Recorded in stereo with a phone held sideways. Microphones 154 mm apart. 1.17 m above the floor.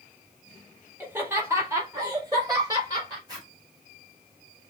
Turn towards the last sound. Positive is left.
turn(degrees=-25)  # may be behind; listen again after turning